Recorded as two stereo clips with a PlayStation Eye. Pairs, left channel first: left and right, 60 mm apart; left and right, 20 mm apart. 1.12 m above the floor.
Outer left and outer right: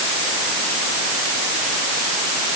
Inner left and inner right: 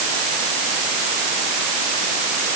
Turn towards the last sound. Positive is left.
No sound to turn to.